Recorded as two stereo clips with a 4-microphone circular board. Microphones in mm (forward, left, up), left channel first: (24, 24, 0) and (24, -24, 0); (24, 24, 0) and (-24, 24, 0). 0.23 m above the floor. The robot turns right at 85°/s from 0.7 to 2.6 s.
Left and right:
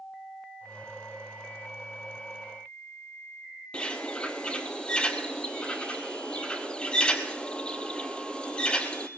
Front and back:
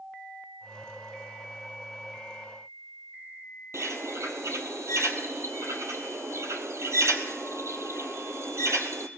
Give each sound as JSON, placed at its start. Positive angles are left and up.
{"t": 3.7, "sound": "a bird", "azimuth_deg": 160, "distance_m": 0.9}